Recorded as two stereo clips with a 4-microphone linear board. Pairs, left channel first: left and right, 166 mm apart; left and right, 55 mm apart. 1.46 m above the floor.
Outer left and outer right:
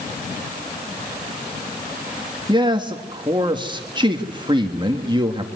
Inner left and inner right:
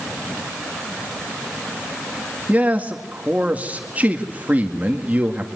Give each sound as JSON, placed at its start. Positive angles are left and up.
{"t": 2.5, "sound": "a man speaking", "side_deg": -30, "distance_m": 1.9}